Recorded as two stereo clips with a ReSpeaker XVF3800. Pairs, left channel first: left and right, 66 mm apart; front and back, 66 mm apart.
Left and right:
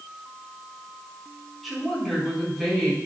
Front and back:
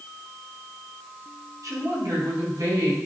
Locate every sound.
1.6 s a woman speaking: 175° left, 4.5 m